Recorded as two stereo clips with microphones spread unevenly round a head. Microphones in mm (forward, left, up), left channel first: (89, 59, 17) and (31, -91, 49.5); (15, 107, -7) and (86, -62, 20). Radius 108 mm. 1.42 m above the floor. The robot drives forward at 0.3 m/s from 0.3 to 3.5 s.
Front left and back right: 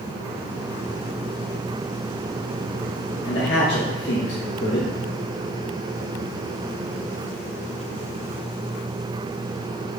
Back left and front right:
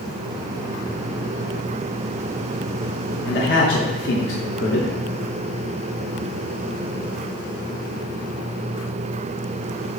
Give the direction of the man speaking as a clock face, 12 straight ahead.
9 o'clock.